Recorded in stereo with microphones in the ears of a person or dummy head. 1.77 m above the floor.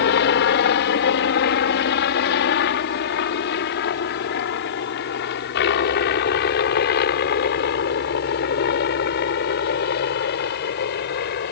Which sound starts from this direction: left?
A helicopter, at 0.0 s.